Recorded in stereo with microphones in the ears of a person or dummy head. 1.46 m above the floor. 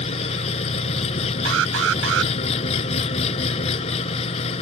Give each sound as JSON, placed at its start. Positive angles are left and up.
{"t": 0.0, "sound": "an engine running", "side_deg": 35}
{"t": 1.4, "sound": "an alarm", "side_deg": -85}